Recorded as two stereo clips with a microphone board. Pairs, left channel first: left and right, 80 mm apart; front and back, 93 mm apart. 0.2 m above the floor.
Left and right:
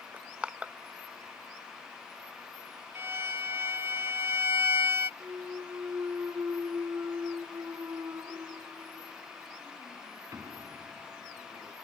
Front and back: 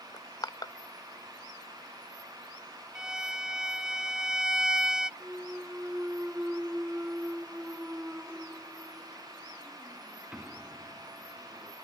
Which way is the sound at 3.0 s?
100° right.